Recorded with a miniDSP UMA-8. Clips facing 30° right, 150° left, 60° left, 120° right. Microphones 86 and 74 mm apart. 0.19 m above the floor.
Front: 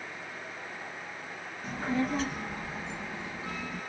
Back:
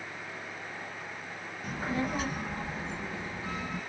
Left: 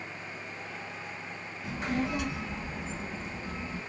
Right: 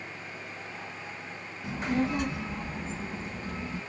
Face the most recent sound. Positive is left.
turn(degrees=-145)